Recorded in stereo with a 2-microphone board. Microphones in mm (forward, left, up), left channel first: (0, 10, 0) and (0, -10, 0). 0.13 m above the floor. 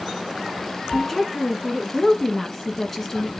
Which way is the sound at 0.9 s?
15° left (ahead or behind).